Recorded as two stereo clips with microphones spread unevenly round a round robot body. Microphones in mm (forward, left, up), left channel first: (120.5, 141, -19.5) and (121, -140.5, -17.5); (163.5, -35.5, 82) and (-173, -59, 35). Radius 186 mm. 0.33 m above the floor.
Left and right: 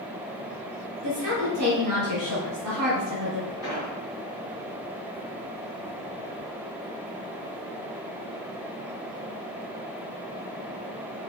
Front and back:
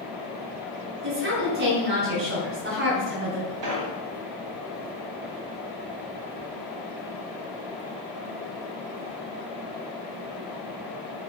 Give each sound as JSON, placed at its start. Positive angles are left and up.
{"t": 1.0, "sound": "a woman speaking", "azimuth_deg": -120, "distance_m": 2.5}
{"t": 3.6, "sound": "an explosion", "azimuth_deg": -170, "distance_m": 2.0}